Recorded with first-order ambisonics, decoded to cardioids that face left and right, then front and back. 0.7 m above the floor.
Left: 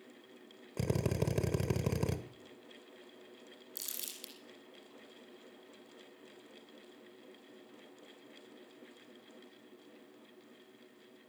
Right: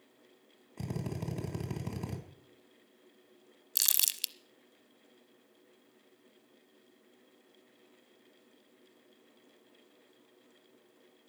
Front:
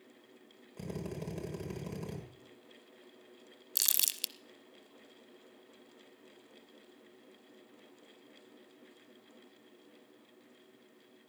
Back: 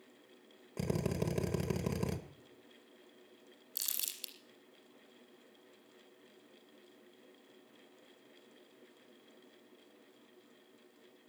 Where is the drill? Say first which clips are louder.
Left 6 dB, back 6 dB; 120° left, 1.6 m.